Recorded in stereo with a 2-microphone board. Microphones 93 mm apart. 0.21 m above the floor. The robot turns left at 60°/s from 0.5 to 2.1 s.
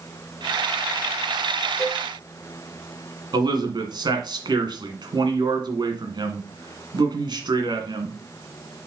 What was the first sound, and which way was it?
A cowbell, 35° left (ahead or behind).